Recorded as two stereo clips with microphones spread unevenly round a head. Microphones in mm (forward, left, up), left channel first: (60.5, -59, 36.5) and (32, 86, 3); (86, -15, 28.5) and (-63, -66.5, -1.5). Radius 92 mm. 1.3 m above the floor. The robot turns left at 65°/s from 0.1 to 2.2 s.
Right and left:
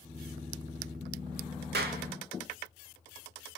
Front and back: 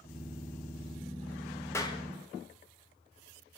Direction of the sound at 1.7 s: 100° left.